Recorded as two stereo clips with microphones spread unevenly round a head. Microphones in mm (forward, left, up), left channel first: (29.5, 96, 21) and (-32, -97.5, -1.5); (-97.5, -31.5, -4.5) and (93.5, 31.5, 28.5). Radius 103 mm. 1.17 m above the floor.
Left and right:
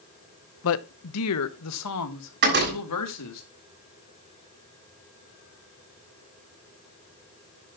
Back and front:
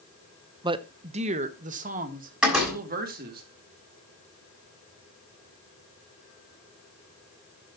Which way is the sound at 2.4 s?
65° right.